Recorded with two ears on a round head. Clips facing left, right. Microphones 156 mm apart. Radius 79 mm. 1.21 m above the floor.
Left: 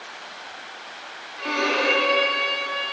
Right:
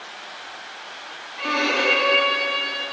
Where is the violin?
65° right (ahead or behind), 6.5 m.